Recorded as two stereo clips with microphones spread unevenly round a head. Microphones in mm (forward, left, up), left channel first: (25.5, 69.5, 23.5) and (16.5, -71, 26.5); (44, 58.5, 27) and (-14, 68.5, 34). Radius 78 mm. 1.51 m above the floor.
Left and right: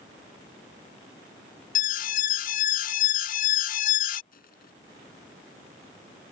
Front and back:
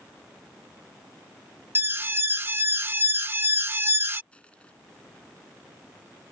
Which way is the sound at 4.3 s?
60° left.